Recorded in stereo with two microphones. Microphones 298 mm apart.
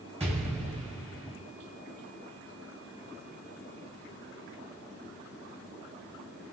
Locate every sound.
0.2 s an explosion: 20° right (ahead or behind), 2.5 m